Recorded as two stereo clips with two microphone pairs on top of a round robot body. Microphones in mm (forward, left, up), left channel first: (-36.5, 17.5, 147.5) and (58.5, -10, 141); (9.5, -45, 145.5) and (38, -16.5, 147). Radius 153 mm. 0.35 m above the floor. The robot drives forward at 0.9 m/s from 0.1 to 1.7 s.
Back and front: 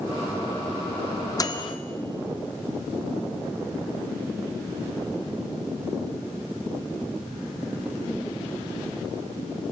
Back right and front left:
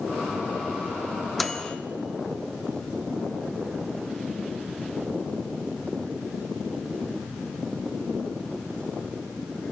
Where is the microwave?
140° left, 0.7 m; by 1.8 s 155° left, 0.9 m.